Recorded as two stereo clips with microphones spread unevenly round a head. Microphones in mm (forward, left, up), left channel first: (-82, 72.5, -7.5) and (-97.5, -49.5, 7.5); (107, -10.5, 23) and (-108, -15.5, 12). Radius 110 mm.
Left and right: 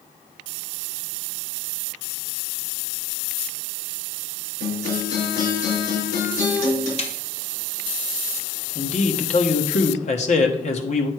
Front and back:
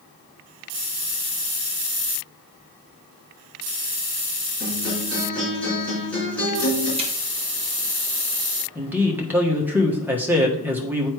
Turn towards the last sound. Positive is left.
turn(degrees=100)